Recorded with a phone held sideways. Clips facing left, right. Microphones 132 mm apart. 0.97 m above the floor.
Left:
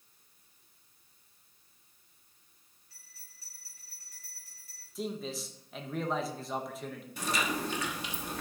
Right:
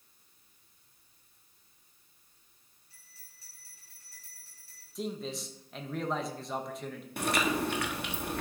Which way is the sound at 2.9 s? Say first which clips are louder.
Right 1 dB; 25° right (ahead or behind).